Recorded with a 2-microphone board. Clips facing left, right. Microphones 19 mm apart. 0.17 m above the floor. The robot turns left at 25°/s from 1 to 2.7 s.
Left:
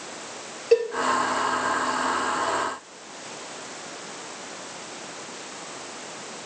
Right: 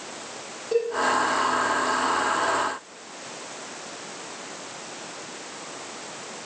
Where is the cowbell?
50° left (ahead or behind), 3.5 m.